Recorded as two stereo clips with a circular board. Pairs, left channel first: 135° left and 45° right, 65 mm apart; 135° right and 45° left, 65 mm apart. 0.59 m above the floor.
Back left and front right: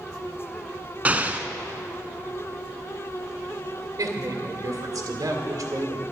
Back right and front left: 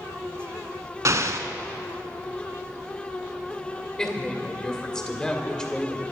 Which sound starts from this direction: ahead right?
A woman speaking, at 4.0 s.